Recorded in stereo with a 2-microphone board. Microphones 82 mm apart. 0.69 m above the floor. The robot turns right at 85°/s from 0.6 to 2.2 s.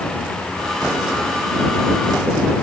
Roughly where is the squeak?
I don't hear a squeak.